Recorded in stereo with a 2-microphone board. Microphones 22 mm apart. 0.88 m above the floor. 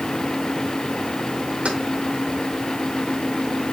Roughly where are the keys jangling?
Right.